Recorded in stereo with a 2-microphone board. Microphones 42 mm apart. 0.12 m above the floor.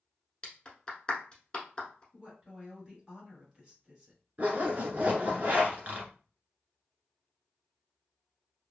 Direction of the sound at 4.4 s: 35° right (ahead or behind).